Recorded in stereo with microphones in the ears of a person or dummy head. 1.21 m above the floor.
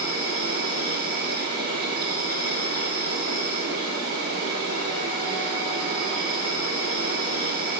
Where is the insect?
40° right (ahead or behind), 1.8 m.